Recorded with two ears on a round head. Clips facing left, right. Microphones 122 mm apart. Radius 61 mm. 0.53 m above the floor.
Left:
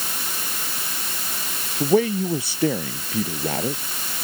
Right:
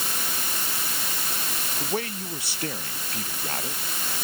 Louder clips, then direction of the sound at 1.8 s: Left 13 dB; 80° left.